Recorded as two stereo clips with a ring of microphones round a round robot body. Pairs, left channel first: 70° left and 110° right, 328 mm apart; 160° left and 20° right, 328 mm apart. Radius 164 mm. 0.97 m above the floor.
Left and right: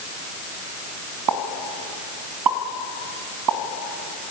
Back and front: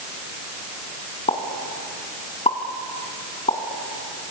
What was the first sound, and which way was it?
A pop, 130° right.